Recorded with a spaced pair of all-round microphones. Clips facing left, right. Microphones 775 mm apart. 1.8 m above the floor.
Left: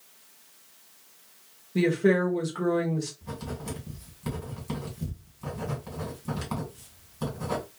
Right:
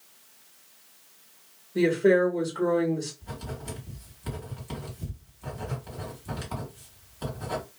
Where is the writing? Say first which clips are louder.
Left 3 dB; 40° left (ahead or behind), 2 m.